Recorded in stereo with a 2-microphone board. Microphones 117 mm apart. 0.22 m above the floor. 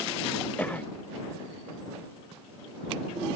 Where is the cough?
10° left (ahead or behind).